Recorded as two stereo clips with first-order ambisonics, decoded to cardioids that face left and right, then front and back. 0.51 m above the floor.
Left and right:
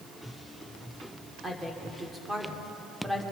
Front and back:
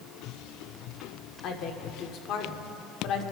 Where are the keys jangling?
No keys jangling in this recording.